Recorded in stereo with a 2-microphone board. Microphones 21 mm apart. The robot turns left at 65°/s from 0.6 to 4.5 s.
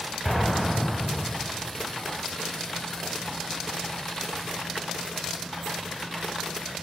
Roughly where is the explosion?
Centre.